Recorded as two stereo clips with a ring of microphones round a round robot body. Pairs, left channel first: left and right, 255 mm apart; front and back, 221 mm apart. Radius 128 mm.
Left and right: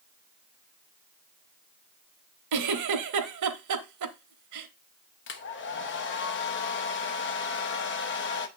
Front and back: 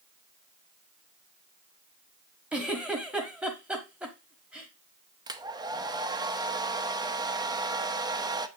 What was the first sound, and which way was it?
A giggle, 95° right.